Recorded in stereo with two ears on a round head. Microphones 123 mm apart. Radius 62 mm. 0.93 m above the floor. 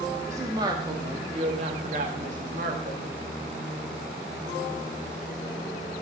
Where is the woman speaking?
20° right (ahead or behind), 2 m; by 3.2 s 70° right (ahead or behind), 2.0 m.